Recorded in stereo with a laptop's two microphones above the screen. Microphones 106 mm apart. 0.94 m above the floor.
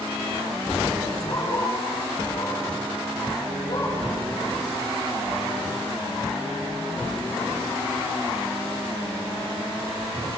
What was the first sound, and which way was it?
A dog barking, 80° left.